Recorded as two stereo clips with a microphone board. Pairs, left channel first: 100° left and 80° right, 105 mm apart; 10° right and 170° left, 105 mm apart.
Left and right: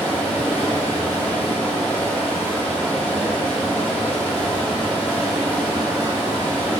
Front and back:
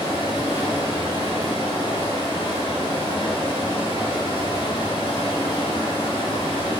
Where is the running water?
20° left, 2.5 m.